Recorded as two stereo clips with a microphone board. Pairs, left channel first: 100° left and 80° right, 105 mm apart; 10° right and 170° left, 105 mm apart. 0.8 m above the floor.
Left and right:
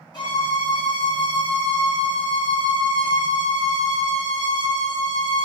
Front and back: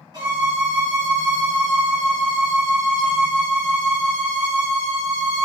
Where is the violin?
140° left, 1.4 m.